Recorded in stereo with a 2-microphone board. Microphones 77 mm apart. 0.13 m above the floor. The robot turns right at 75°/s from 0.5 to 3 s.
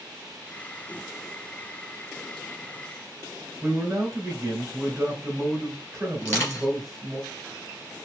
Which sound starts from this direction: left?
Crushing, at 6.2 s.